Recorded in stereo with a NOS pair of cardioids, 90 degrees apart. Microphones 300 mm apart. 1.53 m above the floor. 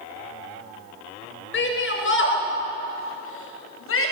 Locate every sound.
1.5 s a shout: 40° left, 7 m; by 4.1 s 50° left, 8 m